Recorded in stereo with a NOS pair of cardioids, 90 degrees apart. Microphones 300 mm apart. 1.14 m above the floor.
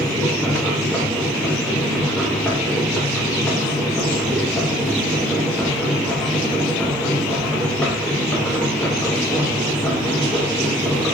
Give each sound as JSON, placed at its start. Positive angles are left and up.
{"t": 0.0, "sound": "a machine running", "azimuth_deg": 5, "distance_m": 0.7}